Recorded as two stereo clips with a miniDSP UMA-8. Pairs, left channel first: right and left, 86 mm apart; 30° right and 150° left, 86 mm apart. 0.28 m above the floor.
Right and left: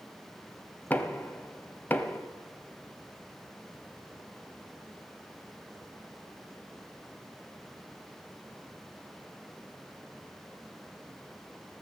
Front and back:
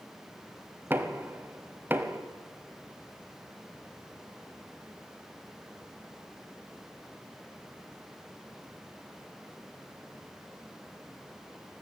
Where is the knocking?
155° right, 0.9 m.